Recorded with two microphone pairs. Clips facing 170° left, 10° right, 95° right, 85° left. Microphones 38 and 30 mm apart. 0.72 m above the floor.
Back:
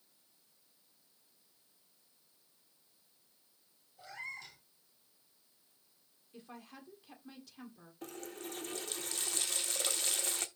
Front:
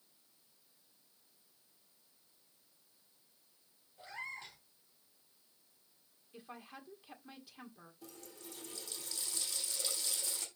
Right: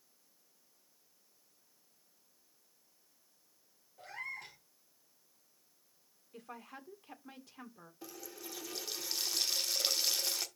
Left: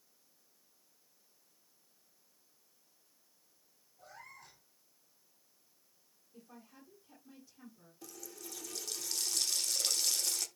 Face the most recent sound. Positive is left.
turn(degrees=-160)